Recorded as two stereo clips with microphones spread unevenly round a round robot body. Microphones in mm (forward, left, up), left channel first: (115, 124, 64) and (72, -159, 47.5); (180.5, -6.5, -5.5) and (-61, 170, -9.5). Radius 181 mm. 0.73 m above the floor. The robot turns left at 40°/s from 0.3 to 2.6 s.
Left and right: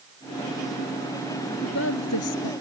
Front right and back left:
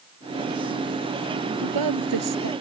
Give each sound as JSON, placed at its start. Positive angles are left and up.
{"t": 1.6, "sound": "a woman speaking", "azimuth_deg": 150}